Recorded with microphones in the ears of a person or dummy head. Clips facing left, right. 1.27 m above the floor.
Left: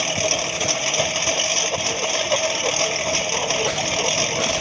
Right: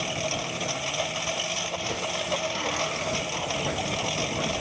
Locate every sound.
0.0 s a lawn mower: 80° left